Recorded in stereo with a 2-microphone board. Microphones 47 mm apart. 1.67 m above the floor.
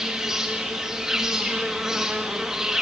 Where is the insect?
10° right (ahead or behind), 1.4 m.